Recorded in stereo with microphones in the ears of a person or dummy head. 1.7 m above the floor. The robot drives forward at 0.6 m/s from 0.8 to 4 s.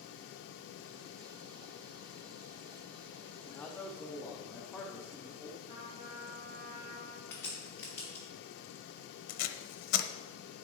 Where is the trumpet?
20° right (ahead or behind), 4 m.